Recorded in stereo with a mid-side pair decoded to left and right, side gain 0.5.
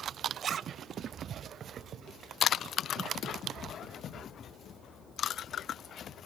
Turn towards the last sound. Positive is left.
turn(degrees=-50)